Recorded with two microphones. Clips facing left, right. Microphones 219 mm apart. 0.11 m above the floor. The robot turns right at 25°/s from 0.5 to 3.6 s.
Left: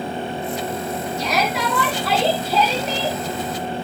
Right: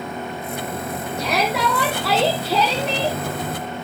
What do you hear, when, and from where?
1.2 s a shout: 120° right, 4.5 m; by 3.2 s 70° right, 4.5 m